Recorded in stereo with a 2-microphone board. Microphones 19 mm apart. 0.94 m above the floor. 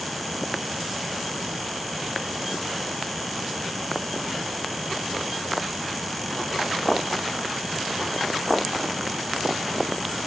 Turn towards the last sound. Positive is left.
No sound to turn to.